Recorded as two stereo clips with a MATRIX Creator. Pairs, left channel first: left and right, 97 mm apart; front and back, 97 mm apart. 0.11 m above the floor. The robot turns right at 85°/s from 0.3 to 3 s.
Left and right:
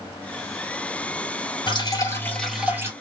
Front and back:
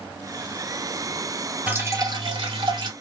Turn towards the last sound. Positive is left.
turn(degrees=-140)